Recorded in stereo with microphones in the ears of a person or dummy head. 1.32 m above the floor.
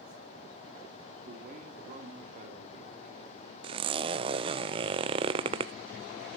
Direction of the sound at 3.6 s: 25° right (ahead or behind).